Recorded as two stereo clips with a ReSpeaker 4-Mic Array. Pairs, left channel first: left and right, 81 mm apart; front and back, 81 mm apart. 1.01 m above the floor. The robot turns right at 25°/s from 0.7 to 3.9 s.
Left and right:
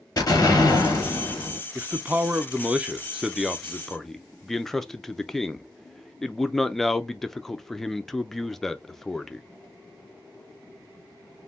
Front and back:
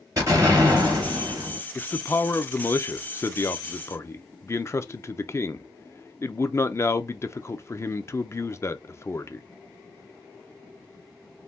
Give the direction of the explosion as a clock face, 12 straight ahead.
8 o'clock.